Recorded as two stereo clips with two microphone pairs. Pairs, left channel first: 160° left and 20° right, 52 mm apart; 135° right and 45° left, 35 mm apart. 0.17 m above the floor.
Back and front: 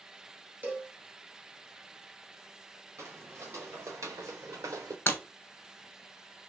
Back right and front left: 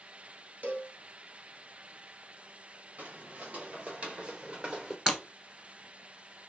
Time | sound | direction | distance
0.6 | a cowbell | 25° left | 1.5 m
3.0 | footsteps | 10° left | 2.0 m
5.1 | breaking glass | 115° left | 1.3 m